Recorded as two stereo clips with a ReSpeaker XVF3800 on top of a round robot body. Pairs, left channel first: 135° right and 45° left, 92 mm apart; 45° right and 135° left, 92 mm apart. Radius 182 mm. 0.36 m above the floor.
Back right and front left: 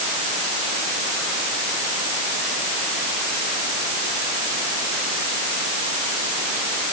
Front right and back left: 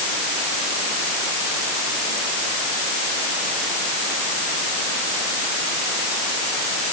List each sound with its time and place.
Only background noise.